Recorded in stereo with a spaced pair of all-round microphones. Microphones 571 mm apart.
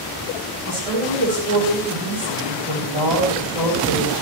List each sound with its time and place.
0.7 s a woman speaking: 80° right, 9 m